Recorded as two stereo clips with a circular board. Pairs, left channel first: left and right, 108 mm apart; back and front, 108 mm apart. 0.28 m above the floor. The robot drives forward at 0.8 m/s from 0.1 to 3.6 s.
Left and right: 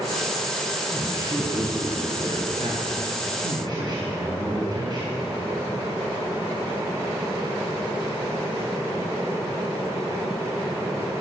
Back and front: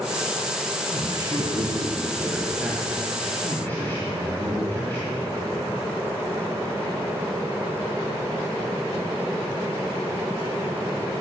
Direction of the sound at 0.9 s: 45° right.